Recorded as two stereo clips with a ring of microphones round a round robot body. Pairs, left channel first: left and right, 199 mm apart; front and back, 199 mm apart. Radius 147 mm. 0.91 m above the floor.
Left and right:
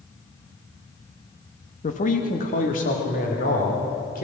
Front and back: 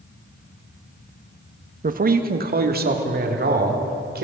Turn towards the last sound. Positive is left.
turn(degrees=145)